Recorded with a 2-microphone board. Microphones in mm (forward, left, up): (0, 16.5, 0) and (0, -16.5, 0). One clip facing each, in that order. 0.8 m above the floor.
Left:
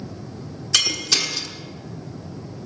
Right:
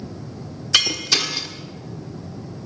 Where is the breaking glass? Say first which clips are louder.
Right 2 dB; 15° right (ahead or behind), 1.4 m.